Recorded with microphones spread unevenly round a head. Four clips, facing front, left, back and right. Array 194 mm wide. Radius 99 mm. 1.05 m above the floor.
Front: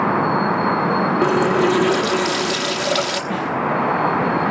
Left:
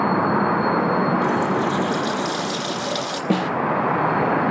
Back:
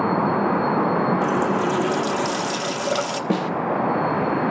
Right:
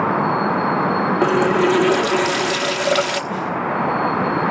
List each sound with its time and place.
1.2 s a running tap: 65° right, 1.2 m
3.3 s a snare drum: 120° left, 1.3 m